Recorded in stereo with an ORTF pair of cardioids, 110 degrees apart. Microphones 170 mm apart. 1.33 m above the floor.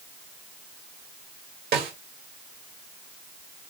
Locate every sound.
1.7 s a snare drum: 65° right, 1.7 m